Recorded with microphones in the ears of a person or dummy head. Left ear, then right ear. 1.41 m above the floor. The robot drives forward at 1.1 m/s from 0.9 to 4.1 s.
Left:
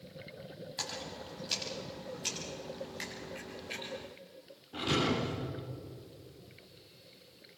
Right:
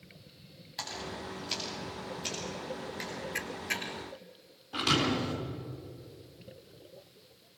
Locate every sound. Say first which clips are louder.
0.8 s a splash: right 2 dB; 5° right (ahead or behind), 9 m
3.4 s a camera shutter: right 10 dB; 60° right (ahead or behind), 1.5 m; by 3.9 s 45° right (ahead or behind), 1.8 m
4.7 s a thud: right 3 dB; 45° right (ahead or behind), 7 m